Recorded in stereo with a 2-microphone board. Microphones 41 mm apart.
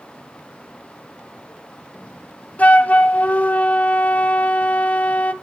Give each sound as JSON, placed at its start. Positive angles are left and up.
{"t": 2.6, "sound": "a flute", "side_deg": 35, "distance_m": 0.8}